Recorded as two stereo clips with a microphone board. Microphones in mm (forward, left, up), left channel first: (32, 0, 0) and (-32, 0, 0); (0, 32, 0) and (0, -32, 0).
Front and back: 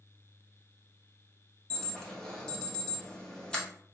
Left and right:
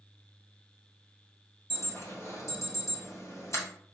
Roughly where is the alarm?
Left.